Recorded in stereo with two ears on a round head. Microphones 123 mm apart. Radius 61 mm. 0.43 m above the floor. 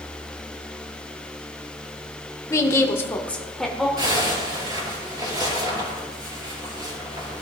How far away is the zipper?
About 4.5 m.